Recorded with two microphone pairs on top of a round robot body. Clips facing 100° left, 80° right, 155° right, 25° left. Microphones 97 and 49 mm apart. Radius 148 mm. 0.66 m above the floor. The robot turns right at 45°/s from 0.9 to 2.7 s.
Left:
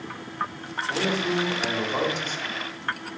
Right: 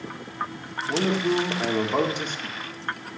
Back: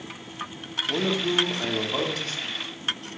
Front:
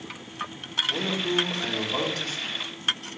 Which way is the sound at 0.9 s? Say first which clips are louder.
Right 3 dB, back 3 dB; 125° right.